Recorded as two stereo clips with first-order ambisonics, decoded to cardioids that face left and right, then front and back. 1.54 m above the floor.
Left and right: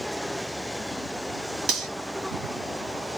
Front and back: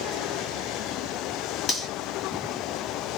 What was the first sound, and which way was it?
Cutlery clinking, 65° right.